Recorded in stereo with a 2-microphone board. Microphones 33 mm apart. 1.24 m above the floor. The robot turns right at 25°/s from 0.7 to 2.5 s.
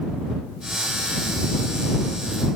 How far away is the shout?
No shout in this recording.